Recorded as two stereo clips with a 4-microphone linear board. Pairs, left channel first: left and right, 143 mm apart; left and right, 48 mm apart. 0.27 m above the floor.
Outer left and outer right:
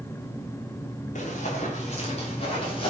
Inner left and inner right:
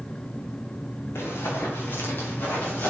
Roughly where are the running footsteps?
Left.